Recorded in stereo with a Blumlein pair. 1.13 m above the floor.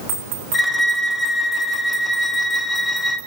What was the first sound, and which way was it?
A violin, 10° left.